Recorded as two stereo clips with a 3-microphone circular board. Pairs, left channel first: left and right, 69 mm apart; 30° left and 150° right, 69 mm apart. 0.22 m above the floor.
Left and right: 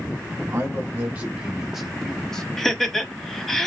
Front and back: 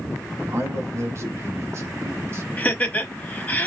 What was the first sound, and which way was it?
A man speaking, 120° right.